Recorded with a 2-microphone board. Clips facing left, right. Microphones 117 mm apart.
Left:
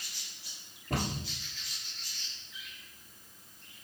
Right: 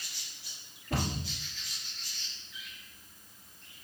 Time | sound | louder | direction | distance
0.9 | a cupboard door | even | 40° left (ahead or behind) | 1.9 m